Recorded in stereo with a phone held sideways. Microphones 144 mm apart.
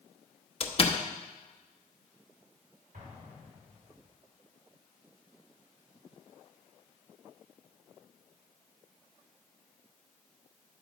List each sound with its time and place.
0.6 s a door slam: 40° left (ahead or behind), 0.9 m
2.9 s an explosion: 70° right (ahead or behind), 3.5 m